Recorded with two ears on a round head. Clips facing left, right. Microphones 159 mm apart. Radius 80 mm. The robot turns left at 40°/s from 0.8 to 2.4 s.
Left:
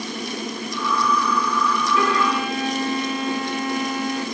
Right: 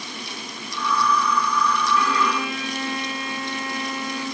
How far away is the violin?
About 4 m.